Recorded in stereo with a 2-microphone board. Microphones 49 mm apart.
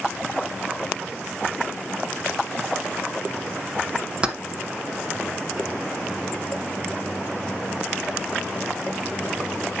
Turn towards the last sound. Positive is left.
turn(degrees=-20)  # may be behind; listen again after turning